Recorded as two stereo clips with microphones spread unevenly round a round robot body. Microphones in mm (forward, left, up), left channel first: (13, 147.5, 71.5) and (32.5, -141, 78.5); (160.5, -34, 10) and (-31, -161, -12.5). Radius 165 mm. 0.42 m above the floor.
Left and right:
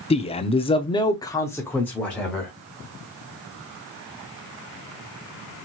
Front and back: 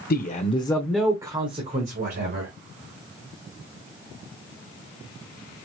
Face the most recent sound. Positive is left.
turn(degrees=180)